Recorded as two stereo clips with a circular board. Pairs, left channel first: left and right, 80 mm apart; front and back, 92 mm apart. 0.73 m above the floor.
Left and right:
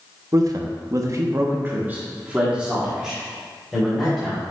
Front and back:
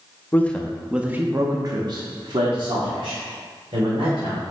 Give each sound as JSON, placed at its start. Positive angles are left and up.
{"t": 0.3, "sound": "a man speaking", "azimuth_deg": -65, "distance_m": 0.9}